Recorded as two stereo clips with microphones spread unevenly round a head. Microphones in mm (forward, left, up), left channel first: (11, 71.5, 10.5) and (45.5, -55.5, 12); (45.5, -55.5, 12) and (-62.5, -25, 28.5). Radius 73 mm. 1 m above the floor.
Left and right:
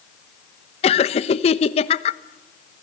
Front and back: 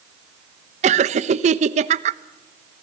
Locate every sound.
0.8 s laughter: 145° left, 1.0 m